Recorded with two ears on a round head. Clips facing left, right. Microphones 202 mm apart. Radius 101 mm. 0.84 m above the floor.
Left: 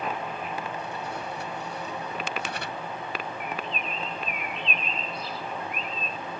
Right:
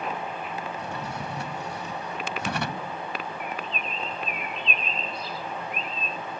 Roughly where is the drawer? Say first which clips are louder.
Right 1 dB; right.